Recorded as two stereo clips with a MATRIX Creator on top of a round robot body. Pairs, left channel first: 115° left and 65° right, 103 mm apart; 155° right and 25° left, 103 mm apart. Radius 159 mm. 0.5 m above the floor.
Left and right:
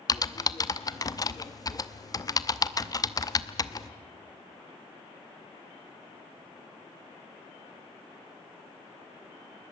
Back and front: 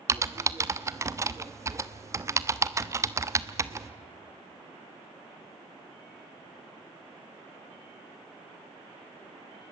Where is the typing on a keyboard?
75° left, 1.1 m.